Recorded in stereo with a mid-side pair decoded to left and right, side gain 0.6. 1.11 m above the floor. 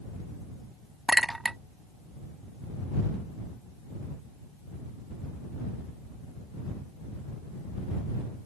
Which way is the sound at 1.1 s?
15° right.